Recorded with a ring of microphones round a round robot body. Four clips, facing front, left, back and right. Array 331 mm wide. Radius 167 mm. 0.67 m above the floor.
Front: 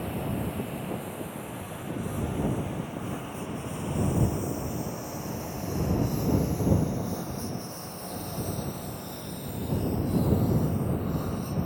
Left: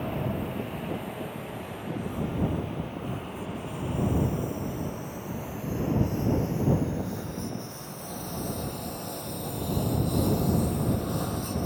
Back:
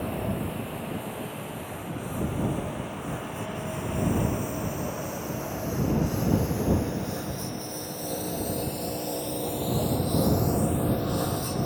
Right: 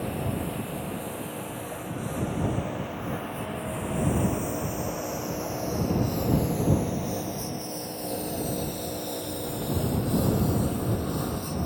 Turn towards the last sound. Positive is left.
turn(degrees=175)